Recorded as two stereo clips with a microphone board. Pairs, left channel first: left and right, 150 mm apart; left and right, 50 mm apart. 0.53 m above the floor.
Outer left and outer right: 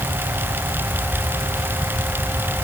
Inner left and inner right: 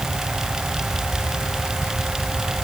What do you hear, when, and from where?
Only background noise.